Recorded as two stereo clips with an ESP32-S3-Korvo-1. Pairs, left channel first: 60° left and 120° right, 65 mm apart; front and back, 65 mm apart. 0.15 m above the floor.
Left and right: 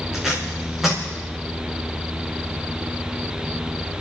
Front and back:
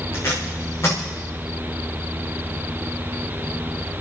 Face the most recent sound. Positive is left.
turn(degrees=-35)